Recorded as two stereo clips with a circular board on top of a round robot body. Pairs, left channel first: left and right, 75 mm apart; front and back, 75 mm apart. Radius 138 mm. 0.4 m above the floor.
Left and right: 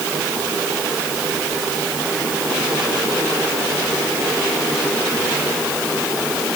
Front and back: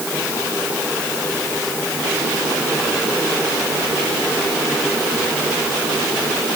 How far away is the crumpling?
I don't hear crumpling.